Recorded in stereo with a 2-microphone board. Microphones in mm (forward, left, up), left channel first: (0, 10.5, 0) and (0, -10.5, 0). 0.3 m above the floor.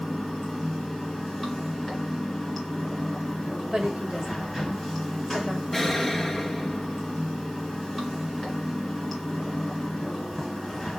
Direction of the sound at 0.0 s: Centre (ahead or behind).